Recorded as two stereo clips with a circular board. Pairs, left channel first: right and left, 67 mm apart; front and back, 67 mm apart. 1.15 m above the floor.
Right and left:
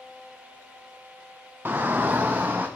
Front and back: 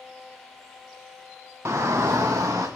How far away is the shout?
About 1.2 m.